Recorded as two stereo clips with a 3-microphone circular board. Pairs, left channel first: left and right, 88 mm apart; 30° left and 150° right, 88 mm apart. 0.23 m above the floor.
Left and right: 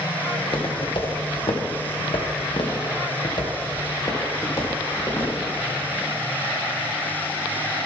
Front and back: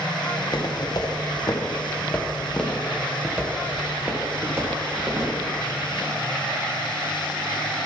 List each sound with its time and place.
0.4 s footsteps: 60° left, 2 m; by 5.3 s 150° left, 3 m